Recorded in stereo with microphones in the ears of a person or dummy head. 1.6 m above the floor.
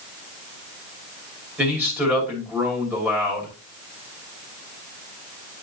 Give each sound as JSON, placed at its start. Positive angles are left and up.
{"t": 1.6, "sound": "a man speaking", "side_deg": -5, "distance_m": 2.5}